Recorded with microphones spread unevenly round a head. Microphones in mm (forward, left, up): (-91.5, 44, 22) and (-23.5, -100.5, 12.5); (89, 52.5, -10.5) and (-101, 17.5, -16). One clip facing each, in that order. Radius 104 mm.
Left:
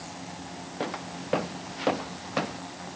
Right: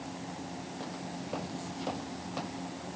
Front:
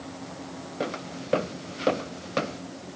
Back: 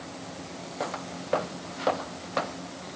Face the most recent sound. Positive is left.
turn(degrees=65)